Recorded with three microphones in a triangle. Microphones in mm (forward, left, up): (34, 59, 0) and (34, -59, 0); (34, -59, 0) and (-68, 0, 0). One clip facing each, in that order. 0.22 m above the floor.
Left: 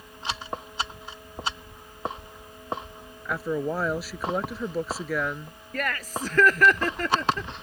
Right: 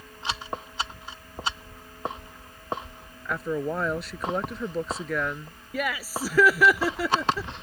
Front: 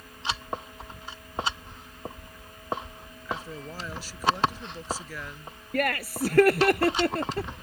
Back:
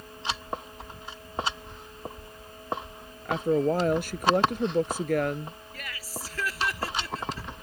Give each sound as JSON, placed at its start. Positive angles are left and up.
{"t": 3.2, "sound": "a woman speaking", "azimuth_deg": 175}
{"t": 5.7, "sound": "laughter", "azimuth_deg": -10}